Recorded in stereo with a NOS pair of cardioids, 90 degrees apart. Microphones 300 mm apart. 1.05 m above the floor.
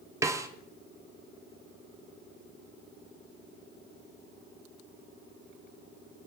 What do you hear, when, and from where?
0.2 s a snare drum: 10° right, 0.7 m